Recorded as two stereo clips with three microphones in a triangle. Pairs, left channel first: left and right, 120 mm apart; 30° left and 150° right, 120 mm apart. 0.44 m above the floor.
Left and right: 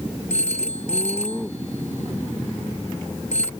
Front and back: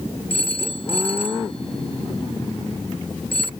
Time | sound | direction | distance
0.3 | a phone ringing | 65° left | ?